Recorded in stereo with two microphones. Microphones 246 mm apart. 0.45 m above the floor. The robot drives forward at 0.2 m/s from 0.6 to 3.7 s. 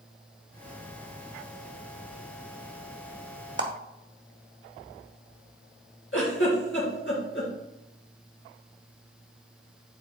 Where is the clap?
50° right (ahead or behind), 1.1 m.